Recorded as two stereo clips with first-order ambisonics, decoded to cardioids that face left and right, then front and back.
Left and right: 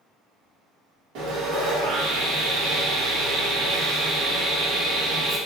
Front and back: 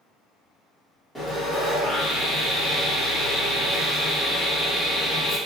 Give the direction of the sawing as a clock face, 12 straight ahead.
3 o'clock.